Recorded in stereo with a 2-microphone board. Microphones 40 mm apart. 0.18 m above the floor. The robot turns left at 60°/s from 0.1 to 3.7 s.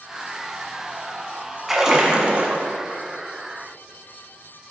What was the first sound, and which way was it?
A splash, 10° right.